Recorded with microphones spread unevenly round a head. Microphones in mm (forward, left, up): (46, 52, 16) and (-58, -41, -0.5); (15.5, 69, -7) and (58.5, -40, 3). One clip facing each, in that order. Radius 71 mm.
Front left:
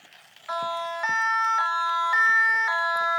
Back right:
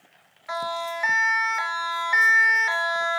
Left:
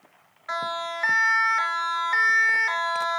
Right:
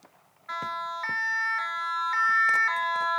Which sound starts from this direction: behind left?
A siren, at 0.5 s.